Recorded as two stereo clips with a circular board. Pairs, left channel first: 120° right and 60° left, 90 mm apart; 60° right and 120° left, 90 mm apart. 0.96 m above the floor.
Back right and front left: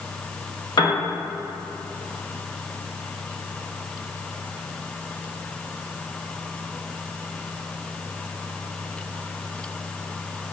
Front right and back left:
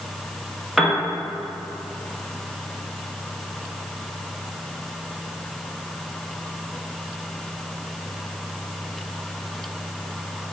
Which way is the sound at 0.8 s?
155° right.